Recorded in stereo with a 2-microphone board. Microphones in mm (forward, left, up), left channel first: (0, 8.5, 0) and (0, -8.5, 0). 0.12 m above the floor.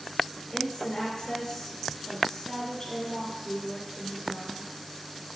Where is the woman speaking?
20° left (ahead or behind), 1.7 m.